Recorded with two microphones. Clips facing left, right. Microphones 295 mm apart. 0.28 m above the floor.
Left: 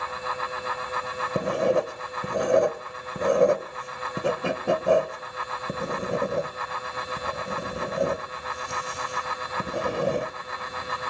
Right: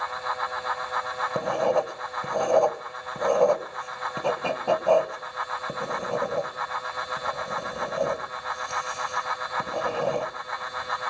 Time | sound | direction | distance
1.4 | writing | 20° left (ahead or behind) | 0.9 m